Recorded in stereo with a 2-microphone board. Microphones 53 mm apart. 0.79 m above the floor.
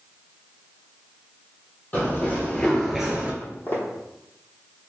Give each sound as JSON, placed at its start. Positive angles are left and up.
{"t": 1.9, "sound": "running footsteps", "side_deg": 35, "distance_m": 1.5}
{"t": 3.4, "sound": "footsteps", "side_deg": 35, "distance_m": 1.3}